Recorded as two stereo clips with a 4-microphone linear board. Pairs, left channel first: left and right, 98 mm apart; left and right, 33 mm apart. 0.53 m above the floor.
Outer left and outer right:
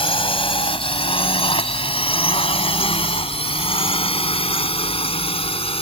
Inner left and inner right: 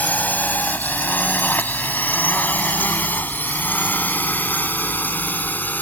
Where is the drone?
70° left (ahead or behind); by 5.8 s 75° left (ahead or behind).